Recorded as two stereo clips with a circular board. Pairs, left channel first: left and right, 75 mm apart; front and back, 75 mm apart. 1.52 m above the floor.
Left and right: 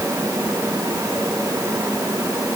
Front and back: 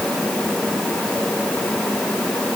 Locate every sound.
Only background noise.